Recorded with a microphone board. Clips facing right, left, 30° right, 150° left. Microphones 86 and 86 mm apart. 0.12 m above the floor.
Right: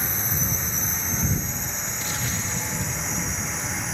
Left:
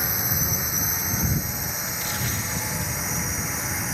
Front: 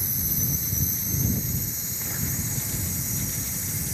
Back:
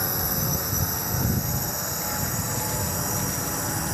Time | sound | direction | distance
0.0 | a drone | 170° left | ?